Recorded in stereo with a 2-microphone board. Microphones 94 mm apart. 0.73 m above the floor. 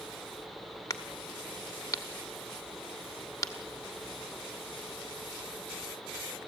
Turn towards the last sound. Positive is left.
turn(degrees=35)  # may be behind; listen again after turning